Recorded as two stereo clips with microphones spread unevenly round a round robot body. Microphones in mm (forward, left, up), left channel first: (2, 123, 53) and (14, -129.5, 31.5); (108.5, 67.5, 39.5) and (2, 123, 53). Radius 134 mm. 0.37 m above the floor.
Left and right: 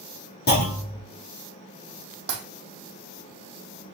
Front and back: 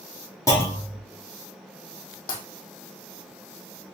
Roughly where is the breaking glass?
Ahead right.